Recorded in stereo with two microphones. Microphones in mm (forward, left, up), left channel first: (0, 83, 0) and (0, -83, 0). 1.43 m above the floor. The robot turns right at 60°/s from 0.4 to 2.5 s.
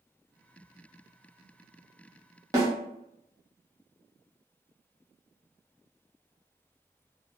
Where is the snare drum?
20° right (ahead or behind), 1.0 m.